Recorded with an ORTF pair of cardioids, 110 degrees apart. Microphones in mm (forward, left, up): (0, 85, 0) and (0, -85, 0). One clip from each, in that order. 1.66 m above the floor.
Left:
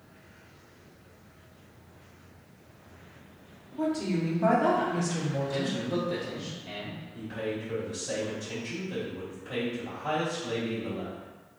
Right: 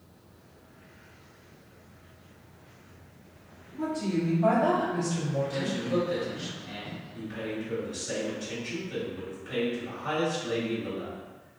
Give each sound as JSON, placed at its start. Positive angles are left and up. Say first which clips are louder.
{"t": 3.7, "sound": "a woman speaking", "louder": "left 1 dB", "azimuth_deg": 50, "distance_m": 1.5}
{"t": 5.5, "sound": "a man speaking", "louder": "right 1 dB", "azimuth_deg": 20, "distance_m": 1.8}
{"t": 7.1, "sound": "a man speaking", "louder": "left 2 dB", "azimuth_deg": 10, "distance_m": 1.8}